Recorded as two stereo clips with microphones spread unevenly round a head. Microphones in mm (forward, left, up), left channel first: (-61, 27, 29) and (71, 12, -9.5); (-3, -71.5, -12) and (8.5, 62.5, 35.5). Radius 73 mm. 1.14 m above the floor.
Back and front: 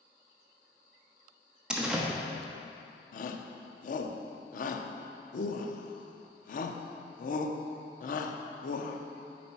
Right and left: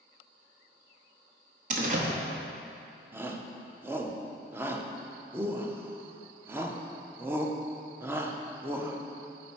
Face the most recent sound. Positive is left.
turn(degrees=170)